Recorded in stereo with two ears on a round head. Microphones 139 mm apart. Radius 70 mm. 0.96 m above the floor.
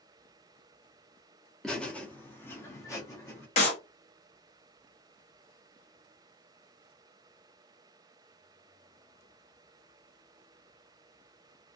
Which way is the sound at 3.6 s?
45° left (ahead or behind).